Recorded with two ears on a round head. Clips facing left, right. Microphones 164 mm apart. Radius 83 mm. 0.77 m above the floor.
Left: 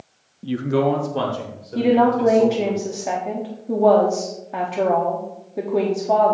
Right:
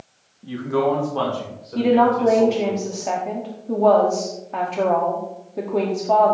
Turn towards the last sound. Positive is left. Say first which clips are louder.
# even
turn(degrees=5)  # may be behind; listen again after turning